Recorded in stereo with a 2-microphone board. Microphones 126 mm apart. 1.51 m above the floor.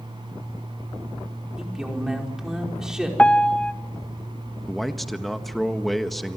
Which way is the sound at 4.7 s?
Centre (ahead or behind).